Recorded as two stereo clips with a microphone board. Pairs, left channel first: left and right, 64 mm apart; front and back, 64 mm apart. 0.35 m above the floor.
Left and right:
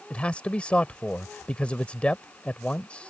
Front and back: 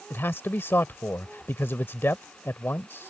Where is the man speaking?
25° left.